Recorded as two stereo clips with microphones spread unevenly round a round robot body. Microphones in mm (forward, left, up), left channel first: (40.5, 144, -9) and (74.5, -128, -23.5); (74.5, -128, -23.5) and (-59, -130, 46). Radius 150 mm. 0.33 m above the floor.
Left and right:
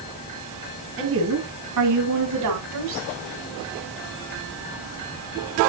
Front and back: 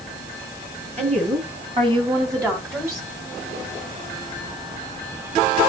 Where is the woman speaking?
130° right, 3 m; by 3.1 s 80° right, 2.5 m.